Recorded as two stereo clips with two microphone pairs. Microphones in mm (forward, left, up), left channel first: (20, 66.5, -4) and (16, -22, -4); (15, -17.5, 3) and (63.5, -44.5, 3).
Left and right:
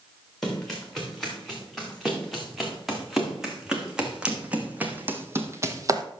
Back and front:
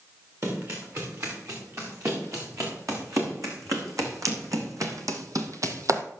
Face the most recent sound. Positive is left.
turn(degrees=-50)